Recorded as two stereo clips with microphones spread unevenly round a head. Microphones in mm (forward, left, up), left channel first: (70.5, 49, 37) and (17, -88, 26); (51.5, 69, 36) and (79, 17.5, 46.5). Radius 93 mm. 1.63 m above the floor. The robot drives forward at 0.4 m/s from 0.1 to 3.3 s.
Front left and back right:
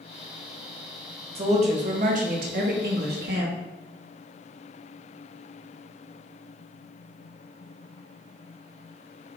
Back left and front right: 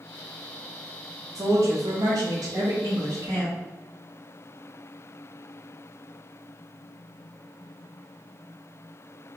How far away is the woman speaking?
About 1.0 m.